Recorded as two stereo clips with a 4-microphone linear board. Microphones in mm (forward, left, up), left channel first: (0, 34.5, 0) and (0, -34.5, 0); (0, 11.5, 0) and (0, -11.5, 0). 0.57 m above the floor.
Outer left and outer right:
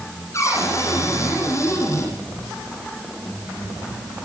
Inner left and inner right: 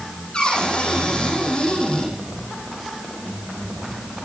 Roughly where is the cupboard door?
Left.